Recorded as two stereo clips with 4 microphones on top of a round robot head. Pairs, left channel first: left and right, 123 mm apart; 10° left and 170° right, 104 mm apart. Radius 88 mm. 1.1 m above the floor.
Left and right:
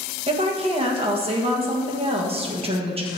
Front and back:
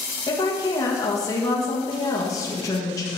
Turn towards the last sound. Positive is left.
turn(degrees=-50)